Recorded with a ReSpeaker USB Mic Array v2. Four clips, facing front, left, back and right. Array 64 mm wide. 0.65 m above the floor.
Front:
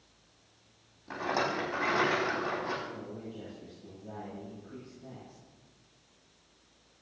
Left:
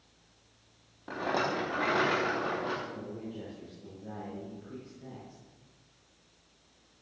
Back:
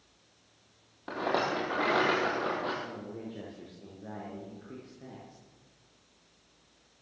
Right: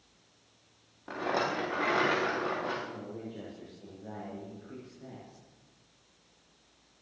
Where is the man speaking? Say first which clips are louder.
Left 1 dB, back 1 dB; 165° right, 8.5 m.